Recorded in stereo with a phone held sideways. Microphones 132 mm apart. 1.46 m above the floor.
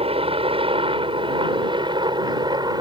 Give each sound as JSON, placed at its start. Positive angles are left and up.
{"t": 0.0, "sound": "a helicopter", "side_deg": -45}